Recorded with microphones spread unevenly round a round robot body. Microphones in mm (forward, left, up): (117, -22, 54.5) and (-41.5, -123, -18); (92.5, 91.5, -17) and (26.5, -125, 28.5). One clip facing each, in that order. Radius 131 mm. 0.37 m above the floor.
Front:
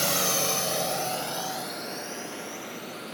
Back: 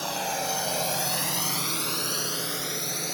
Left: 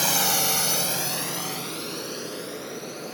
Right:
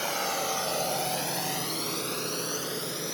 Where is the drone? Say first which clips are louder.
Front 3 dB, left 3 dB; 70° left; by 3.1 s 175° right.